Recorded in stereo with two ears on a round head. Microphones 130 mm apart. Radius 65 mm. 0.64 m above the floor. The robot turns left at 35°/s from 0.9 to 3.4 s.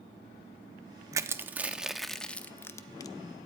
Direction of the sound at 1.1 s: 20° right (ahead or behind).